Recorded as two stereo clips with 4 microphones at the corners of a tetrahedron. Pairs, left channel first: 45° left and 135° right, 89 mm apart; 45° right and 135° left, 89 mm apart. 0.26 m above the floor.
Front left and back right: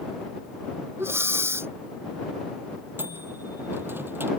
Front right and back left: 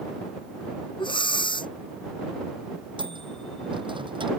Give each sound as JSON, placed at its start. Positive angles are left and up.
{"t": 1.0, "sound": "breathing", "azimuth_deg": -75}
{"t": 3.0, "sound": "a microwave", "azimuth_deg": 160}